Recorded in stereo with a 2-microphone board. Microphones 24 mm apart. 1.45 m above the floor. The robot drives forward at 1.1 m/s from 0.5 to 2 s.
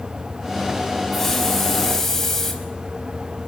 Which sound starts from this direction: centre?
A hiss, at 1.1 s.